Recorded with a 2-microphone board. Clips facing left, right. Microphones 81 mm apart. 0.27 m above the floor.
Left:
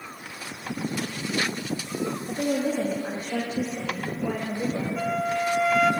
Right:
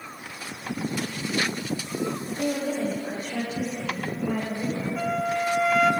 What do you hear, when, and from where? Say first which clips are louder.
2.3 s a woman speaking: left 4 dB; 45° left (ahead or behind), 9 m; by 4.9 s 40° left (ahead or behind), 10 m
5.0 s a flute: right 1 dB; 5° right (ahead or behind), 0.8 m